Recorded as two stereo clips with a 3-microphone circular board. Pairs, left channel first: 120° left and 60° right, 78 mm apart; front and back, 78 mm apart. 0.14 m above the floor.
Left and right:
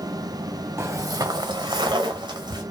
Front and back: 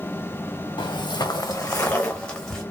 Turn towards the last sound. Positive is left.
turn(degrees=-80)